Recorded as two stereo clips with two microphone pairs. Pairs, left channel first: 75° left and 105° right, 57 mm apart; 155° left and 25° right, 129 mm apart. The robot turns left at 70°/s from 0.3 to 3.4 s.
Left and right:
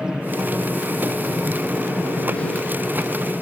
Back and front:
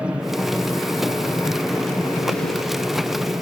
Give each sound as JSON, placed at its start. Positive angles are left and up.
{"t": 0.0, "sound": "an aircraft", "azimuth_deg": -85}